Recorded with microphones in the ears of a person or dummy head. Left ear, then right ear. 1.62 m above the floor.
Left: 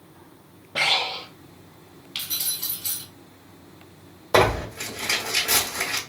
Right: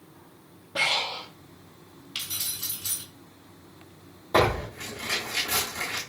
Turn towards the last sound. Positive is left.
turn(degrees=65)  # may be behind; listen again after turning